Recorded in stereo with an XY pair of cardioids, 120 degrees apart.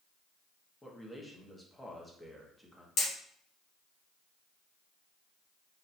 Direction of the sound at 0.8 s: 5° left.